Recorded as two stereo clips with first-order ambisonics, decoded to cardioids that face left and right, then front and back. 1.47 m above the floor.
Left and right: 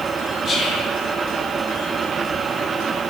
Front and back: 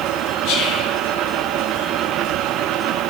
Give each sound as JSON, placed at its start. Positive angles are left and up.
{"t": 0.5, "sound": "whispering", "azimuth_deg": 25, "distance_m": 0.5}